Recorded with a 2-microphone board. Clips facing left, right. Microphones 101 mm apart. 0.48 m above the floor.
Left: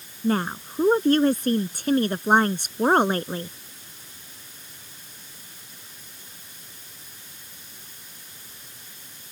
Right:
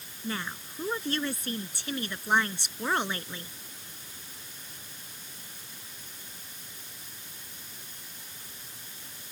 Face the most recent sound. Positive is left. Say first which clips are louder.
# left 12 dB
turn(degrees=45)  # may be behind; listen again after turning